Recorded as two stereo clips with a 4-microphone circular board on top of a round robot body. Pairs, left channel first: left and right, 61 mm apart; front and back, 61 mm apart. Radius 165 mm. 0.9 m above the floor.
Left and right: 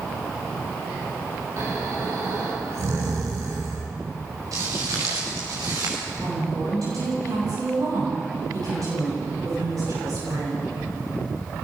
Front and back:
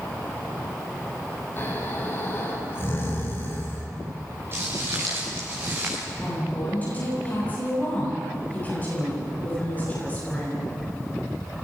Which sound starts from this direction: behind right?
Footsteps, at 4.5 s.